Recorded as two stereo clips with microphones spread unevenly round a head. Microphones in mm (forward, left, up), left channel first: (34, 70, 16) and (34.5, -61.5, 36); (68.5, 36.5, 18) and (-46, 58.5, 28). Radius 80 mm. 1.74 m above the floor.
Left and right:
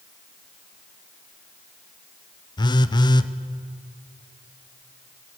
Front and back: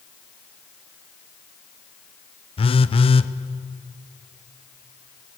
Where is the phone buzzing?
30° left, 1.0 m.